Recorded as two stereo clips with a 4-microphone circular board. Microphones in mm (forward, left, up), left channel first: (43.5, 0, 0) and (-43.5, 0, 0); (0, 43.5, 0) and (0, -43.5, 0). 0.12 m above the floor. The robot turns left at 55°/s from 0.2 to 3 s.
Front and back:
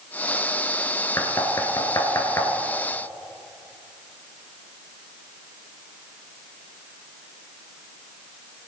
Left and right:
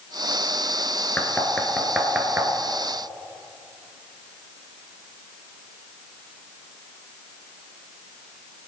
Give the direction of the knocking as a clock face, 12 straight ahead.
11 o'clock.